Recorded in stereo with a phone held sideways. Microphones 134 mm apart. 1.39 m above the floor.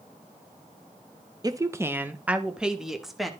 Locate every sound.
1.4 s a woman speaking: 25° right (ahead or behind), 0.7 m; by 3.3 s centre (ahead or behind), 1.5 m